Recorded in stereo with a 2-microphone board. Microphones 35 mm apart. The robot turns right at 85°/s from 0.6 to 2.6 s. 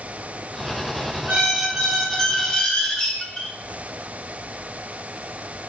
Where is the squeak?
60° right, 0.7 m; by 3.5 s 50° left, 0.7 m.